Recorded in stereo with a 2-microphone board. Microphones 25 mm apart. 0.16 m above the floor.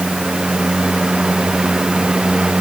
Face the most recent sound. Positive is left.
No sound to turn to.